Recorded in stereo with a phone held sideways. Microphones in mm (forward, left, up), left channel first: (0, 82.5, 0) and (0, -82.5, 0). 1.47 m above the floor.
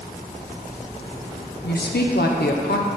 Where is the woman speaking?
80° left, 0.7 m.